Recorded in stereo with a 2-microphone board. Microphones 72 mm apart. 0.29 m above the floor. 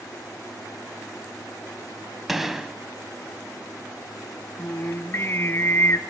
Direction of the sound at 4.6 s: 40° left (ahead or behind).